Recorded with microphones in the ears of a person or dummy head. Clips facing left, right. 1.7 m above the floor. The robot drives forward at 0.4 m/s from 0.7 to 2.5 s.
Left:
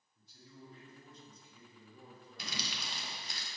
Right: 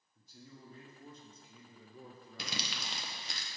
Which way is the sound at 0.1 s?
40° right (ahead or behind).